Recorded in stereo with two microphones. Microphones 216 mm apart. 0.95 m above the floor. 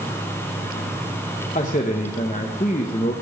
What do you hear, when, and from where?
1.6 s a man speaking: 40° left (ahead or behind), 0.8 m